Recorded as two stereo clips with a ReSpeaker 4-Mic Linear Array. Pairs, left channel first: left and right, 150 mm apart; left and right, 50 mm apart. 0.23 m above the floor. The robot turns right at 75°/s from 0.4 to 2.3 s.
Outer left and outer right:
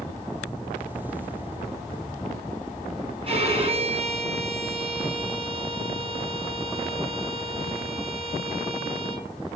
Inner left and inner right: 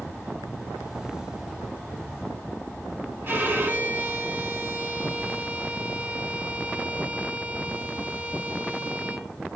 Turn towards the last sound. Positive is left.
turn(degrees=-40)  # may be behind; listen again after turning